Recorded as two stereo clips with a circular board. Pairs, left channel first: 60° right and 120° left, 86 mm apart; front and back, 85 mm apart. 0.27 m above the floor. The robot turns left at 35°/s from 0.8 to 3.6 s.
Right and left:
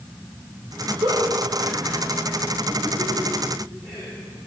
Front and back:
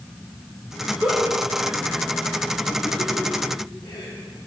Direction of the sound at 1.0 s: 110° left.